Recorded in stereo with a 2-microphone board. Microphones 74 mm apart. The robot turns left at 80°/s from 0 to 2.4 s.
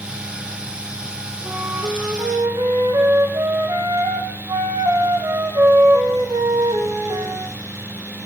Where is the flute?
10° right, 6 m; by 7.5 s 85° right, 6 m.